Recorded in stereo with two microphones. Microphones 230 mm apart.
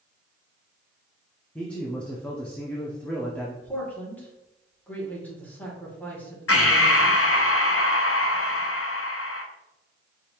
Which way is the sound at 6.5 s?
75° left (ahead or behind).